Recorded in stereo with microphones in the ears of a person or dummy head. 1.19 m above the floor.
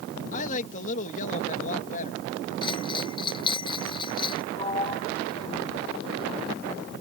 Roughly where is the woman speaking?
Left.